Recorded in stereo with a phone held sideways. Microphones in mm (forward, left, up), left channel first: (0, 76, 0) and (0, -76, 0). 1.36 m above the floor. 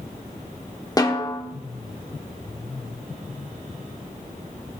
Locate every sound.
1.0 s a snare drum: 25° left (ahead or behind), 1.1 m